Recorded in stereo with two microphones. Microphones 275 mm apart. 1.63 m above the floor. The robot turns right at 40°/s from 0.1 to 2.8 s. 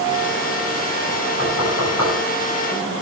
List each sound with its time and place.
1.4 s knocking: 65° left (ahead or behind), 9 m; by 2.1 s 85° left, 9 m